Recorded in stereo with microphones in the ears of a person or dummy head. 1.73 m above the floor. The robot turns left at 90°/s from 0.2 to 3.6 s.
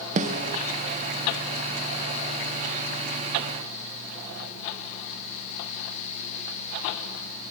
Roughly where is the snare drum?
Right.